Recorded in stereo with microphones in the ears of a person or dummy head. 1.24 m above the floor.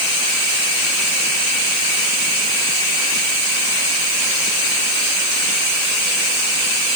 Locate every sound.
Only background noise.